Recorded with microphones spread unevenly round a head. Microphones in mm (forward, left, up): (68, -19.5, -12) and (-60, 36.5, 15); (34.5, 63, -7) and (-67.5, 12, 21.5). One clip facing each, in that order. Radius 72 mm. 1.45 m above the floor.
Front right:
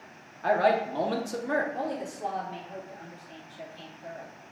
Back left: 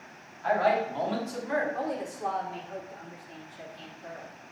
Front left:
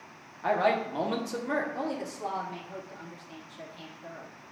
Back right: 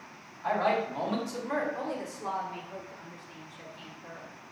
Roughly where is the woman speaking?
Ahead left.